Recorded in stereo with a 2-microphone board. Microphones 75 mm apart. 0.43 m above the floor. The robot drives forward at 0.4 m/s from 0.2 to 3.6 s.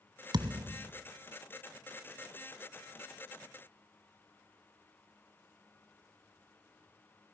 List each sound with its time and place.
0.3 s a thud: 70° right (ahead or behind), 0.8 m; by 0.9 s 55° right (ahead or behind), 0.9 m